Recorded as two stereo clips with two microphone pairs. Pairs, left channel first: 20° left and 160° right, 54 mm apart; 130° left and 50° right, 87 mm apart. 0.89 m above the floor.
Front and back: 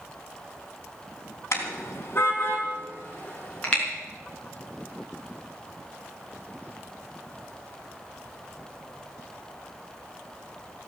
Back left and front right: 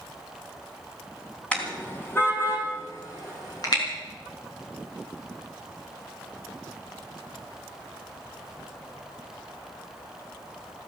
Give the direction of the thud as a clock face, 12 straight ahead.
No thud in this recording.